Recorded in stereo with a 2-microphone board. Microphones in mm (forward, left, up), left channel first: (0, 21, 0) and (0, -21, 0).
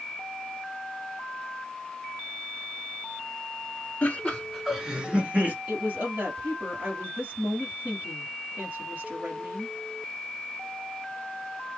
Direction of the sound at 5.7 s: 35° right (ahead or behind).